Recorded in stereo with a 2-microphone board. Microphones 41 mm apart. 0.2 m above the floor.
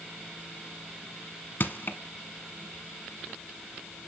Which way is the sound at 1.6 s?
50° left (ahead or behind).